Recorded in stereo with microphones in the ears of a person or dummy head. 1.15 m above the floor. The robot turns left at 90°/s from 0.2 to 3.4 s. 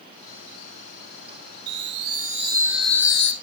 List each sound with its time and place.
1.7 s a chime: 75° right, 1.3 m; by 3.3 s 135° left, 1.3 m